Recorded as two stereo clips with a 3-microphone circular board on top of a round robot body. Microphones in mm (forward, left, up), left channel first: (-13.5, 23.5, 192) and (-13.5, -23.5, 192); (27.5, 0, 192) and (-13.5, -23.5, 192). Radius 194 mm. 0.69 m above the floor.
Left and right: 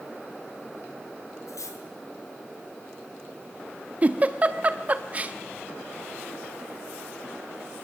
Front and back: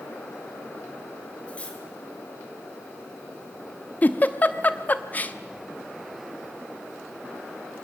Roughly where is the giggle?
Ahead right.